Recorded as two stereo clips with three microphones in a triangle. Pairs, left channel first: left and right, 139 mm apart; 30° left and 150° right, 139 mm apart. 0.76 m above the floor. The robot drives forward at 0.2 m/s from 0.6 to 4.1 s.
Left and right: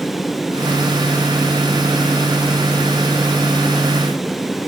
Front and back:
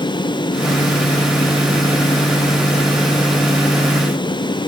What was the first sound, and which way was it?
Only background noise.